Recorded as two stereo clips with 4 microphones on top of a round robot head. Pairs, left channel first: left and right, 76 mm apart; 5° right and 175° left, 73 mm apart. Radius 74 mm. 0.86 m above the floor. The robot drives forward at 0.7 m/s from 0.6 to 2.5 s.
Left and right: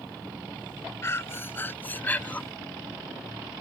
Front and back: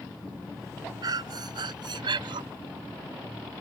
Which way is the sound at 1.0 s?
145° left.